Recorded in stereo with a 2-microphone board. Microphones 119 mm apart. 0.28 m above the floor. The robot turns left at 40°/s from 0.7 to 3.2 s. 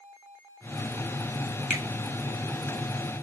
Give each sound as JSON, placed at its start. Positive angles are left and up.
{"t": 1.7, "sound": "a finger snap", "side_deg": -5, "distance_m": 1.5}